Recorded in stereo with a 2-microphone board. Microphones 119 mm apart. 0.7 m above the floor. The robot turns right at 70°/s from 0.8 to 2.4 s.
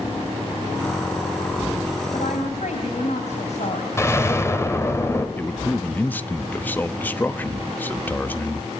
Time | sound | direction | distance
2.1 | a woman speaking | 60° left (ahead or behind) | 4 m
4.0 | an explosion | 25° left (ahead or behind) | 2.5 m
5.4 | a man speaking | 15° left (ahead or behind) | 0.9 m